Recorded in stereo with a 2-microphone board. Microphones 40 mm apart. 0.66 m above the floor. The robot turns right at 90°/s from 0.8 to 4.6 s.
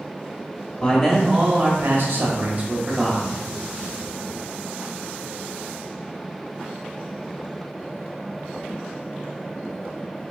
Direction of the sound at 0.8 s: 150° left.